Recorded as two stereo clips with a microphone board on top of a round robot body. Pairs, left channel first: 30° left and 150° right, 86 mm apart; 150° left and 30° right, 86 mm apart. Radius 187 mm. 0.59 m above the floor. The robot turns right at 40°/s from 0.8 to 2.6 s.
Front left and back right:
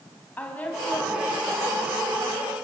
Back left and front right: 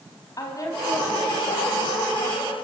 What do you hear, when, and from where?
0.4 s a woman speaking: 100° left, 4.5 m; by 2.5 s 170° left, 4.5 m